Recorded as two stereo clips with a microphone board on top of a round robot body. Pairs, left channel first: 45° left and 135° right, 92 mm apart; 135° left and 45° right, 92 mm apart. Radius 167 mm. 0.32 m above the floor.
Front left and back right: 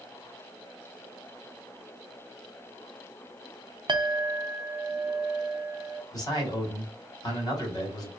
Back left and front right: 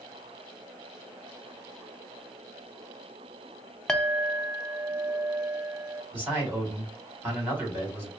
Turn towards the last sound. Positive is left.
turn(degrees=15)